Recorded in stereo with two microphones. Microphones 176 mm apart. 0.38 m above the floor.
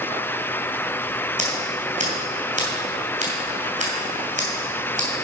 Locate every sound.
1.4 s scissors: 45° right (ahead or behind), 2.5 m